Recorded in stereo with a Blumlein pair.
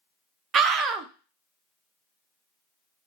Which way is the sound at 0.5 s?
25° right.